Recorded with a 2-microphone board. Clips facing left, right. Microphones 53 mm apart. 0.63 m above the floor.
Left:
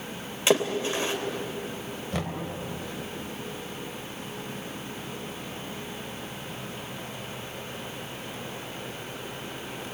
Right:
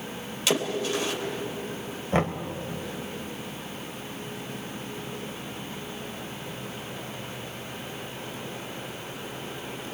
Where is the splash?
30° left (ahead or behind), 3 m.